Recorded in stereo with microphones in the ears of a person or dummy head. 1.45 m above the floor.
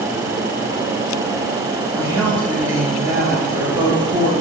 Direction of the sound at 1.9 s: 15° right (ahead or behind).